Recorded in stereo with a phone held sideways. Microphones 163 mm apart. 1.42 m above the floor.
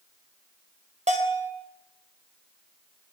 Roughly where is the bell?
Right.